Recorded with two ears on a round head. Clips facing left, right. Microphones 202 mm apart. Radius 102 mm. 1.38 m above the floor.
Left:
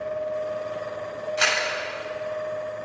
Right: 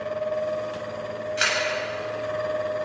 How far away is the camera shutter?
About 7.5 m.